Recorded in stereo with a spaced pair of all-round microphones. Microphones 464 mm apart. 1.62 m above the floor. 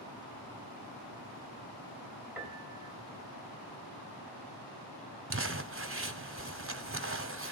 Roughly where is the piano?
Centre.